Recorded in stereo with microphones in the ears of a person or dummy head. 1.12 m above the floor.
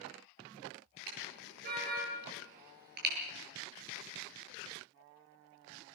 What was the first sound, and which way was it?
A car horn, 50° right (ahead or behind).